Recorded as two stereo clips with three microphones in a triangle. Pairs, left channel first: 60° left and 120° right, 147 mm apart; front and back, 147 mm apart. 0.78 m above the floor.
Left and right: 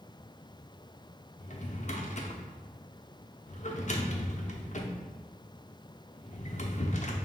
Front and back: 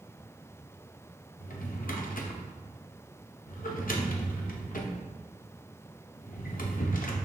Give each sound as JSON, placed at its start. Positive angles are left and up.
{"t": 1.4, "sound": "a drawer", "azimuth_deg": 20, "distance_m": 0.6}